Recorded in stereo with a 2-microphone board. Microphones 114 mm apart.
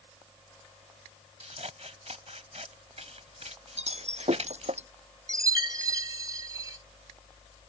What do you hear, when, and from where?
1.4 s scissors: 70° right (ahead or behind)
3.8 s breaking glass: 70° right (ahead or behind)
5.3 s a chime: 35° right (ahead or behind)